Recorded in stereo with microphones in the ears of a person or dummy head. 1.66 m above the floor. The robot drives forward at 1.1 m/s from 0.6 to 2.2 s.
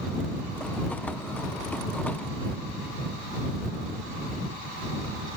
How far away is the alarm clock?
I don't hear an alarm clock.